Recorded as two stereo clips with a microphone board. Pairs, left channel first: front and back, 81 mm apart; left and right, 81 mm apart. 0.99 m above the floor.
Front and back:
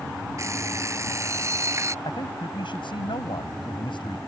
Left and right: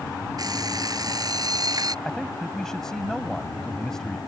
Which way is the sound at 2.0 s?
5° left.